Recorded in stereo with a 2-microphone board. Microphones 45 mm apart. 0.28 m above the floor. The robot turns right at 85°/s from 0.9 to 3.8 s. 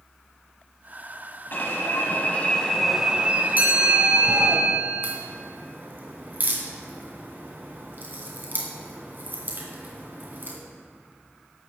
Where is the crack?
50° right (ahead or behind), 3 m.